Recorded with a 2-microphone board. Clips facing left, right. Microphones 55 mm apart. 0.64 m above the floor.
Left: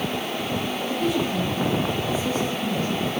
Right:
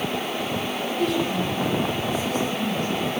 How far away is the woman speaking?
About 7.5 m.